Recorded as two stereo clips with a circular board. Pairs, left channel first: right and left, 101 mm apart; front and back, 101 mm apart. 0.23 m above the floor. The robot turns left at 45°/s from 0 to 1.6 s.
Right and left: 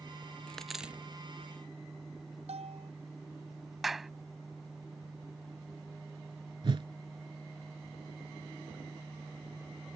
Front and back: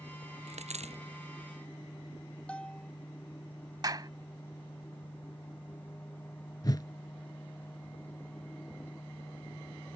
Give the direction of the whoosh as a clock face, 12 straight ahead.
10 o'clock.